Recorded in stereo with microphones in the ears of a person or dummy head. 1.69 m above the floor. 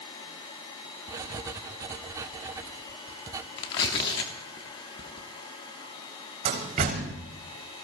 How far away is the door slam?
About 2.5 m.